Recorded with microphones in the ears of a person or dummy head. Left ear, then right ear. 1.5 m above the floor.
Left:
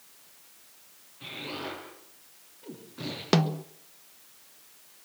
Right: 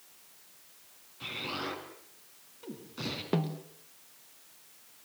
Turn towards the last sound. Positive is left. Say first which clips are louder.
# left 10 dB
turn(degrees=70)  # may be behind; listen again after turning